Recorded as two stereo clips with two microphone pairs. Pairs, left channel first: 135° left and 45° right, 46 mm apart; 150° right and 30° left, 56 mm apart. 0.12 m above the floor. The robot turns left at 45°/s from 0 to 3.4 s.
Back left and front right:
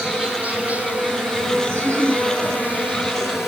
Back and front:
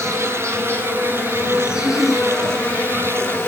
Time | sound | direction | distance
0.0 | an insect | 30° left | 3.5 m
1.7 | a giggle | 10° right | 8 m